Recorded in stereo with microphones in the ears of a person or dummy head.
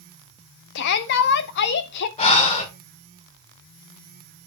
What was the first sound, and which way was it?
A shout, 60° left (ahead or behind).